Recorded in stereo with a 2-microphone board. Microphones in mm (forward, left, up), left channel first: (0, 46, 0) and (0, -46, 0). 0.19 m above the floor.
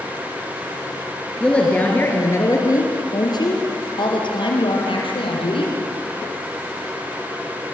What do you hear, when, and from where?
1.4 s a woman speaking: 10° left (ahead or behind), 3.5 m; by 5.7 s 75° left (ahead or behind), 7 m